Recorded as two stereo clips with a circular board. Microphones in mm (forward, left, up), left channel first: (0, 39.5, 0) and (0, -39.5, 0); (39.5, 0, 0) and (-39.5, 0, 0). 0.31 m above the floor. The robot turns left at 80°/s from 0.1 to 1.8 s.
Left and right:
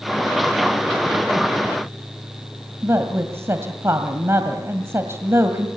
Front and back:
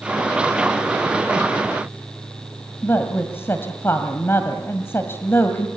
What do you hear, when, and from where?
2.8 s a woman speaking: 50° right, 1.9 m